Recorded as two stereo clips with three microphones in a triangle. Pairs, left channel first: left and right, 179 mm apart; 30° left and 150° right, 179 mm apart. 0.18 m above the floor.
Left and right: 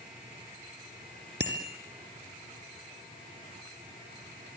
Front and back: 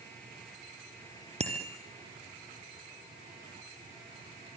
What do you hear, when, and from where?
1.4 s a bicycle bell: 95° right, 3.5 m